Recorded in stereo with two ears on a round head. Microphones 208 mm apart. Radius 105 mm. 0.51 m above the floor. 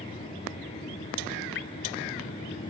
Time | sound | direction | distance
1.6 | dripping | 55° left (ahead or behind) | 1.2 m